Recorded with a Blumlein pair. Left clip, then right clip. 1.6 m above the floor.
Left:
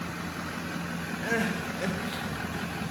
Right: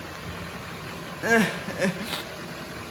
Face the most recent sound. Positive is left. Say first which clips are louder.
# right 8 dB
turn(degrees=-65)